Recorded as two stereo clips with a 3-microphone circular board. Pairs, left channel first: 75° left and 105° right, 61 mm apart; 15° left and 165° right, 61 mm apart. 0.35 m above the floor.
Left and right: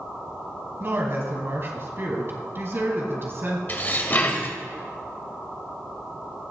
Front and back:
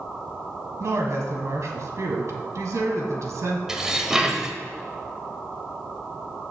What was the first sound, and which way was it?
A woman speaking, 145° right.